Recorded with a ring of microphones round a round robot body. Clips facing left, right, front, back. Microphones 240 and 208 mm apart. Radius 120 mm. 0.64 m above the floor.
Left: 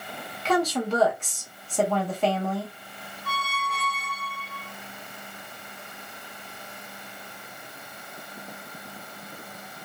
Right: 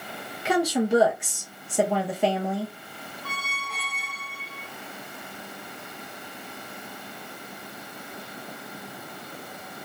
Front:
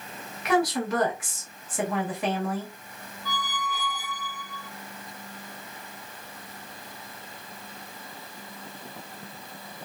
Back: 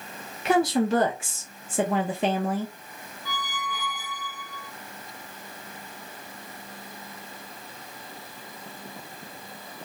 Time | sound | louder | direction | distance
0.5 | a woman speaking | right 2 dB, back 3 dB | 155° right | 0.5 m
3.2 | a squeak | left 4 dB, front 2 dB | 65° right | 1.0 m